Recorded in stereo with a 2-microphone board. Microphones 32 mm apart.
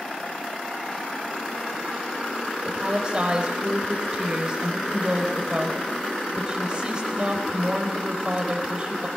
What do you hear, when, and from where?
2.6 s a woman speaking: 30° right (ahead or behind), 4 m